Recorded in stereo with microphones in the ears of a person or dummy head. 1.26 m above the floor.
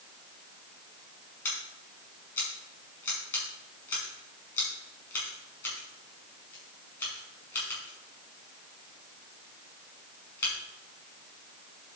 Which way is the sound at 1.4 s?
10° left (ahead or behind).